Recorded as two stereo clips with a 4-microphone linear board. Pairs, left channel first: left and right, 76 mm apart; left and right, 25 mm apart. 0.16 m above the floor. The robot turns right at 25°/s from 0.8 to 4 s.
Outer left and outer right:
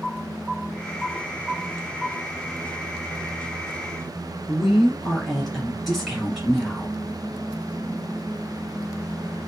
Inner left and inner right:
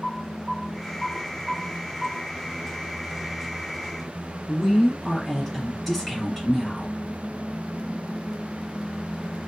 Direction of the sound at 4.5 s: 5° left (ahead or behind).